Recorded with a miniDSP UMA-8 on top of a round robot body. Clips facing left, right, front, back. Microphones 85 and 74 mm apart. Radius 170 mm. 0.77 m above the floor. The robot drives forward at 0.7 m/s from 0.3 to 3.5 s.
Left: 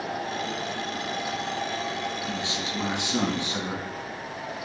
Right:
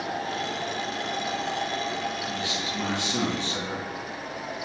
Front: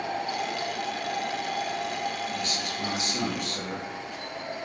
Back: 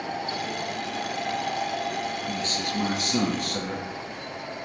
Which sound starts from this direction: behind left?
A man speaking, at 2.3 s.